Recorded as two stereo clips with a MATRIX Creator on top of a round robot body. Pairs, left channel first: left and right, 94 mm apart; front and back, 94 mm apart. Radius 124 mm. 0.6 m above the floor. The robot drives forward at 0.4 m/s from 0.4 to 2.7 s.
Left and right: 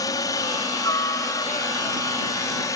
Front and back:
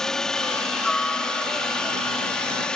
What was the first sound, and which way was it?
A helicopter, 80° left.